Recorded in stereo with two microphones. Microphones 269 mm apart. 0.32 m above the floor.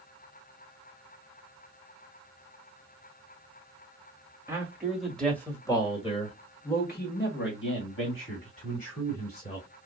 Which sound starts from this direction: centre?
A man speaking, at 4.5 s.